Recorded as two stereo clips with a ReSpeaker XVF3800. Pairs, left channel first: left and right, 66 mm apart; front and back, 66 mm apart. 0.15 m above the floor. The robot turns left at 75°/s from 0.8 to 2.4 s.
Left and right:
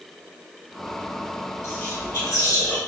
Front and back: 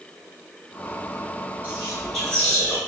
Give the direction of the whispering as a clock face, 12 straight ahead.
8 o'clock.